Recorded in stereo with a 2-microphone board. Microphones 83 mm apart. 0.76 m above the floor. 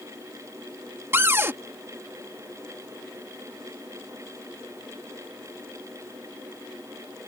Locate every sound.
1.1 s a cupboard door: 30° right (ahead or behind)